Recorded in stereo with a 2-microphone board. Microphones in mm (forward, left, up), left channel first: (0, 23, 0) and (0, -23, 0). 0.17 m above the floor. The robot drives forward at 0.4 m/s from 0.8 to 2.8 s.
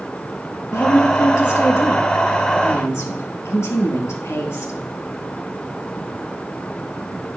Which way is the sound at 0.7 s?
65° left (ahead or behind).